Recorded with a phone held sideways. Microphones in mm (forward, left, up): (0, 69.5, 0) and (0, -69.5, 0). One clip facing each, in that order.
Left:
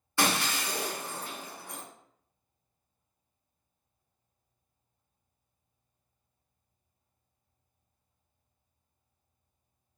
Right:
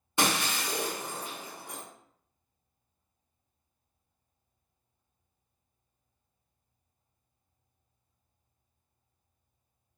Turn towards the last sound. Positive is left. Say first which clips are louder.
# even
turn(degrees=-20)  # may be behind; listen again after turning